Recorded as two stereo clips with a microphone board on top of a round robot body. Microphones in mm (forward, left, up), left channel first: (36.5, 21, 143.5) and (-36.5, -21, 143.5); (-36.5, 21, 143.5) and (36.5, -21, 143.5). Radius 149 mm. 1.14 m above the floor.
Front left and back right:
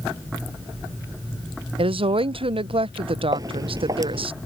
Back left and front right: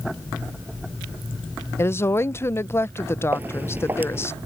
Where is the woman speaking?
150° right.